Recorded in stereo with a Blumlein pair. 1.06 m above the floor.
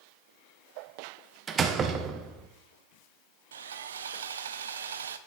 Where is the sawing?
65° right, 0.6 m.